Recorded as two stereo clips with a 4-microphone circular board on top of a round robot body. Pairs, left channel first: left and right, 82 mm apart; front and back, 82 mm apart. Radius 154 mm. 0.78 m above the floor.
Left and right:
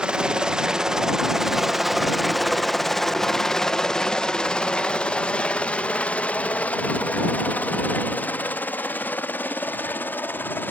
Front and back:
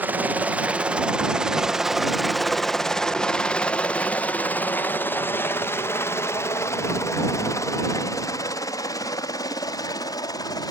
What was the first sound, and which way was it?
A helicopter, 155° right.